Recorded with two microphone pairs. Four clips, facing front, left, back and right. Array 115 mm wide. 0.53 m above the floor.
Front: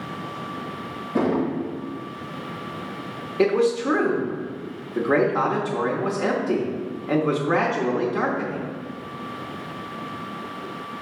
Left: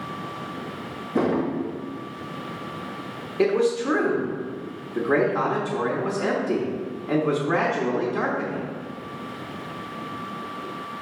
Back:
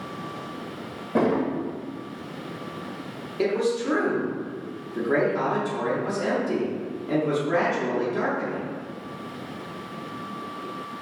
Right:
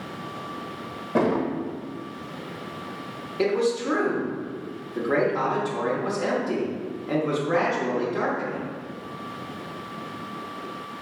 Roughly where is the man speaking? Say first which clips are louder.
Left 2 dB, front 4 dB; ahead.